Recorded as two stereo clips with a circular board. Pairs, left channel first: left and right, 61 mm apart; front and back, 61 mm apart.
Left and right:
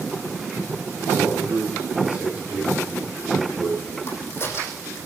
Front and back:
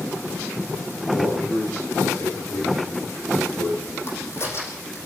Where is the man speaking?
25° right, 9 m.